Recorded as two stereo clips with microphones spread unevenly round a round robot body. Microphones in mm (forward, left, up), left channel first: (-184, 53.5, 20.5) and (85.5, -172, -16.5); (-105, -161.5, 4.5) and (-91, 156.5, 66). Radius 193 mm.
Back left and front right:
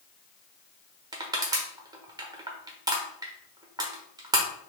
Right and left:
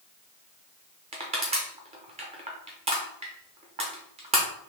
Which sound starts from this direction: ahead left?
Crushing, at 1.1 s.